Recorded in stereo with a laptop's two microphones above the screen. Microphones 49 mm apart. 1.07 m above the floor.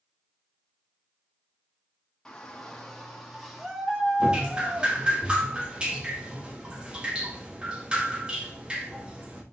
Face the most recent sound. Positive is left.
turn(degrees=-20)  # may be behind; listen again after turning